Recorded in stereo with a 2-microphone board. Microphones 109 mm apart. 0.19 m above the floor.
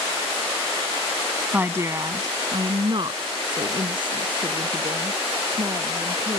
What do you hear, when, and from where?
1.5 s a woman speaking: 15° right (ahead or behind); by 6.4 s 45° right (ahead or behind)